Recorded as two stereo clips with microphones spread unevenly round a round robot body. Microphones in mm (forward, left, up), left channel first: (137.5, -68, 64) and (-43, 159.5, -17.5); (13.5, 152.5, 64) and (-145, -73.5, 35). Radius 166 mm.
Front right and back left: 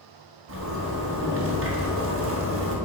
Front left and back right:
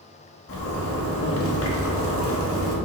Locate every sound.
0.5 s a zipper: 95° left, 1.6 m